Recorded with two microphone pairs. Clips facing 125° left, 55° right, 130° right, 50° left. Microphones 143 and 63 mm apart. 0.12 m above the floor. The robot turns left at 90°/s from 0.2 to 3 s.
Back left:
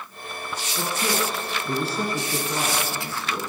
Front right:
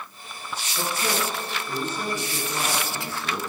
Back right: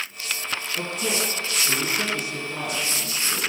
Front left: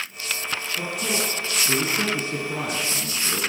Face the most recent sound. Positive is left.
turn(degrees=0)